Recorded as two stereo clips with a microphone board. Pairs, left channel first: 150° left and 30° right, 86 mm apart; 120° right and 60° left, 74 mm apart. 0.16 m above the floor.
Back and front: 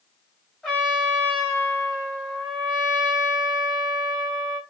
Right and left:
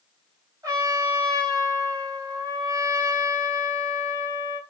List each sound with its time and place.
0.6 s a trumpet: 70° left, 2 m